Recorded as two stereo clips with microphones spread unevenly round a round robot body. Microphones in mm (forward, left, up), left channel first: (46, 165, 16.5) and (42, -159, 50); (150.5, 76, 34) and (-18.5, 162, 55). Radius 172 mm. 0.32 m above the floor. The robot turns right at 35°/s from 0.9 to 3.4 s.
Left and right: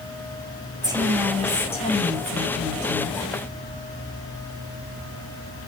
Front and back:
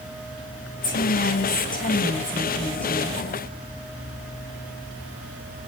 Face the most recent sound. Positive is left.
turn(degrees=75)